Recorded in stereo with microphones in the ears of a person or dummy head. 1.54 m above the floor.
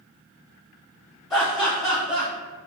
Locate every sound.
1.3 s laughter: 15° left (ahead or behind), 1.3 m